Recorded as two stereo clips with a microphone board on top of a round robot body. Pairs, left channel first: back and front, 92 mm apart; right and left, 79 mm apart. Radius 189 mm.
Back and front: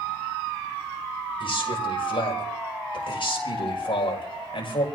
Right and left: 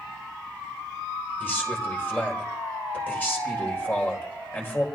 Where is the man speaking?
155° right, 6 m.